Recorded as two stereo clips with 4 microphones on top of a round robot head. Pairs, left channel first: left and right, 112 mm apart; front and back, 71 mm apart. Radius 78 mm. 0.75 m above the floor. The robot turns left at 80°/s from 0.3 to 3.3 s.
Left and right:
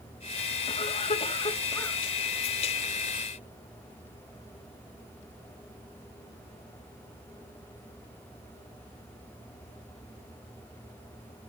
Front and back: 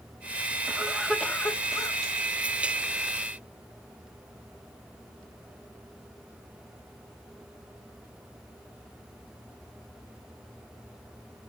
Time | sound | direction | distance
0.7 | a cough | 115° left | 1.9 m